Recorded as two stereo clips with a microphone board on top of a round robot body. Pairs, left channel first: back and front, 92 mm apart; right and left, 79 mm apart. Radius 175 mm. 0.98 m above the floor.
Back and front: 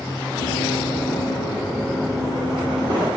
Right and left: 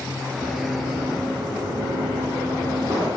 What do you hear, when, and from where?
0.4 s running footsteps: 165° right, 2 m; by 3.1 s 35° left, 2 m